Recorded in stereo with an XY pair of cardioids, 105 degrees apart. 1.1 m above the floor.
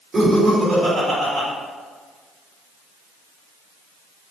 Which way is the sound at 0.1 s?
35° right.